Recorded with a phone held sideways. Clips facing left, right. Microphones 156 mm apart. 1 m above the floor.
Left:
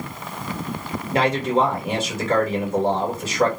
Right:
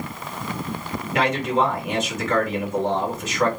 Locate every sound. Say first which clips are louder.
1.1 s a man speaking: left 2 dB; 30° left (ahead or behind), 1.3 m